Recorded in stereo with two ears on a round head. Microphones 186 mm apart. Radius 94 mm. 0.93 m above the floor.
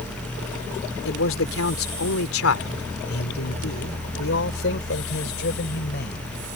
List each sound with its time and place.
1.1 s a man speaking: 70° left (ahead or behind); by 6.3 s 50° left (ahead or behind)